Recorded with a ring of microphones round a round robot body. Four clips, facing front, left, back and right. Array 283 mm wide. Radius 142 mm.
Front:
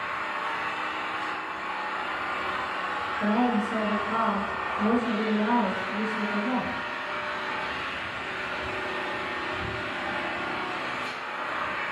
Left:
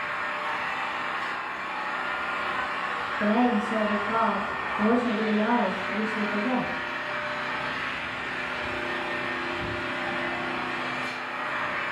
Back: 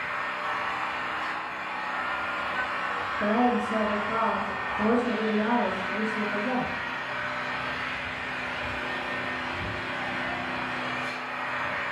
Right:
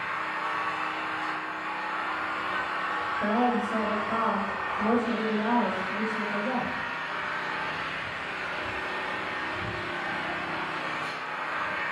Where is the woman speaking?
95° left, 1.4 m.